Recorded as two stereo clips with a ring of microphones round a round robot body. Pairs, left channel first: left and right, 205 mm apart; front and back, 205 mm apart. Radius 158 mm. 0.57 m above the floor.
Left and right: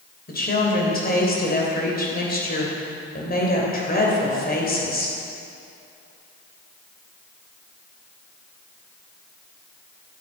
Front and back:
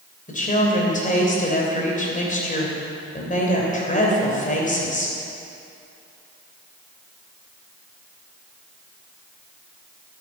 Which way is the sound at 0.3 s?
50° left.